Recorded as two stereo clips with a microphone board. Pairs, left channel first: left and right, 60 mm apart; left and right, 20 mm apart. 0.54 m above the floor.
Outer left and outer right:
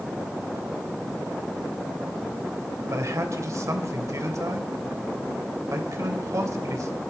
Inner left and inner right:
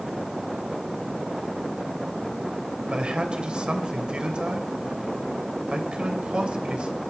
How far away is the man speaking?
About 2.5 m.